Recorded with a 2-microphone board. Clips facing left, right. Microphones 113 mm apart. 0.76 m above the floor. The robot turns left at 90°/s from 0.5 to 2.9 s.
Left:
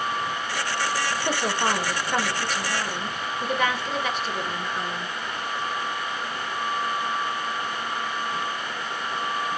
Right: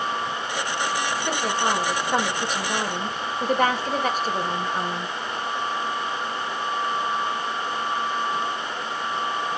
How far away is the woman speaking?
About 0.9 m.